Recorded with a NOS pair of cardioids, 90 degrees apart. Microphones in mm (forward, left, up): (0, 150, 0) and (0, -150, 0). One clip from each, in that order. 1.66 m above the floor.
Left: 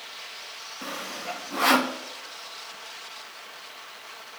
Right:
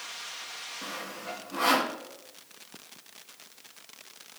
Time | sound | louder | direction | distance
0.8 | sawing | left 7 dB | 25° left | 1.0 m